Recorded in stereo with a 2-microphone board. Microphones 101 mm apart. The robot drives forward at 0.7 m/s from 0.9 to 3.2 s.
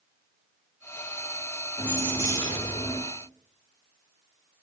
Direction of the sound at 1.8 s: 35° left (ahead or behind).